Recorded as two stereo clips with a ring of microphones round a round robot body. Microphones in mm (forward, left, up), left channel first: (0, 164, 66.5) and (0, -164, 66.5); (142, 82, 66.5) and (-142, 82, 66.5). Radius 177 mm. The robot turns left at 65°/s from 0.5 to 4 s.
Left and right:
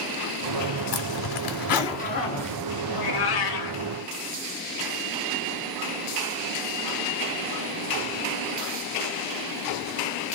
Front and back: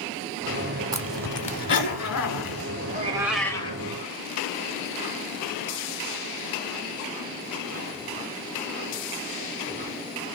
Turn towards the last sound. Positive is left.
turn(degrees=50)